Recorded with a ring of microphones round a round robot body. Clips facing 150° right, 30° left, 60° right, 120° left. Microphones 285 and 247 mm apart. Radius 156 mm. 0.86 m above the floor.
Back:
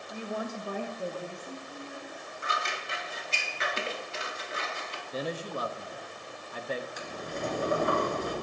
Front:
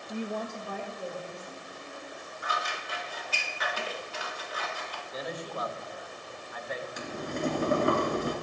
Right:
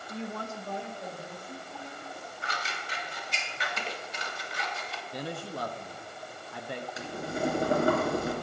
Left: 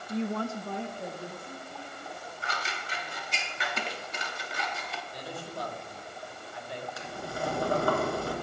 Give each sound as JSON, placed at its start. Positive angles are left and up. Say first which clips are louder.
{"t": 0.1, "sound": "a woman speaking", "louder": "front 2 dB, left 7 dB", "azimuth_deg": 85, "distance_m": 0.6}
{"t": 2.4, "sound": "scissors", "louder": "even, left 2 dB", "azimuth_deg": 145, "distance_m": 0.8}
{"t": 5.1, "sound": "a man speaking", "louder": "back 3 dB, right 5 dB", "azimuth_deg": -95, "distance_m": 0.9}
{"t": 7.0, "sound": "boiling", "louder": "front 3 dB, right 6 dB", "azimuth_deg": 10, "distance_m": 2.5}